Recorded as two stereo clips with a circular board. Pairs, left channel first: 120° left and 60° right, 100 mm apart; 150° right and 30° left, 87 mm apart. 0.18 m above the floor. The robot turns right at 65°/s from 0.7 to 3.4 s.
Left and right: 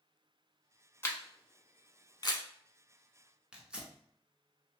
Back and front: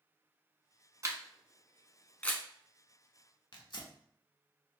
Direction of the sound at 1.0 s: 65° left.